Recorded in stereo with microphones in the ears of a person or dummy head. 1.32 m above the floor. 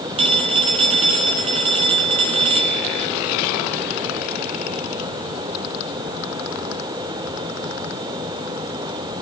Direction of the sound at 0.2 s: 30° right (ahead or behind).